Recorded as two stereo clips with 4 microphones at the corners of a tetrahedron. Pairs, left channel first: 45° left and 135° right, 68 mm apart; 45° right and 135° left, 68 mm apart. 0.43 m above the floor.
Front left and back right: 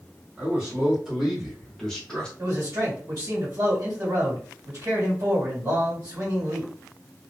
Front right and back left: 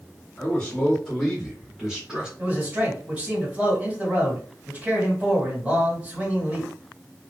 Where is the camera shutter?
I don't hear a camera shutter.